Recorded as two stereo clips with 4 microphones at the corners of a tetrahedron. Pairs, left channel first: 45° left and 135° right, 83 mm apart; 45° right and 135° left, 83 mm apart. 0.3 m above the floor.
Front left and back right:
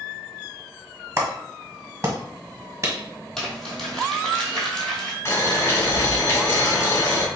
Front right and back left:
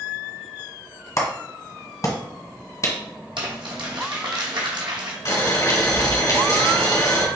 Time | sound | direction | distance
1.2 | a clap | 85° right | 1.4 m
3.4 | crumpling | 130° left | 1.7 m
5.2 | boiling | 10° right | 2 m